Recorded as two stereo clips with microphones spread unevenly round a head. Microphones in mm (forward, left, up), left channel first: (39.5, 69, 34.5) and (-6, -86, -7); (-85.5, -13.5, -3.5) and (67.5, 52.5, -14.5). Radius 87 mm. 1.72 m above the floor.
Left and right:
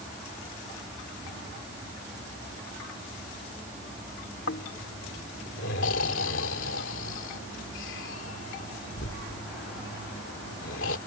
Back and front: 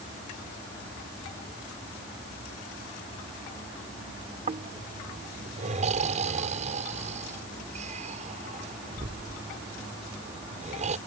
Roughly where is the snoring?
Left.